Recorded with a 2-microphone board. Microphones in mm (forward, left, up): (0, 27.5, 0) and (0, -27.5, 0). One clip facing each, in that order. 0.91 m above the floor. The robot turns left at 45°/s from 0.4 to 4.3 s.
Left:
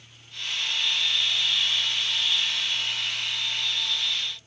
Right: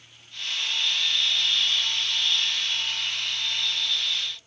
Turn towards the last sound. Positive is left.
No sound to turn to.